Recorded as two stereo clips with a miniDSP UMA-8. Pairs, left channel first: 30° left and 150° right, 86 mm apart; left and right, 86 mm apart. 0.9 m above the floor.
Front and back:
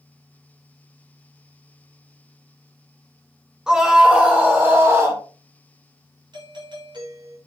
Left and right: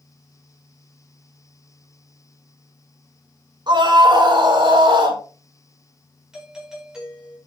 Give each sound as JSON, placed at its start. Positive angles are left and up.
{"t": 3.7, "sound": "a scream", "azimuth_deg": -70, "distance_m": 3.5}
{"t": 6.3, "sound": "a doorbell", "azimuth_deg": -170, "distance_m": 4.5}